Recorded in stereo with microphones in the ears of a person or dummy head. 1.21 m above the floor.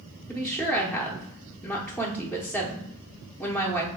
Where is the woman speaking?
10° left (ahead or behind), 0.6 m.